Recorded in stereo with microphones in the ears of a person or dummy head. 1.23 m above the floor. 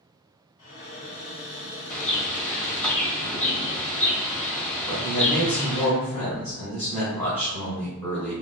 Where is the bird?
10° left (ahead or behind), 1.3 m.